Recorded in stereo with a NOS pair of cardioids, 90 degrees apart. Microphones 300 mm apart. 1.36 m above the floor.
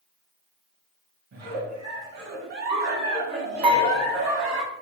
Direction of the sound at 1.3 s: 65° right.